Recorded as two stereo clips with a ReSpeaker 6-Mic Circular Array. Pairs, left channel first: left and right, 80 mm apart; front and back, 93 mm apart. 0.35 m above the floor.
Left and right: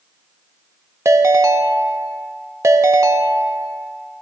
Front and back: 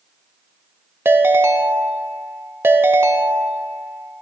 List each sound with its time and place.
1.1 s a ringtone: 125° right, 0.5 m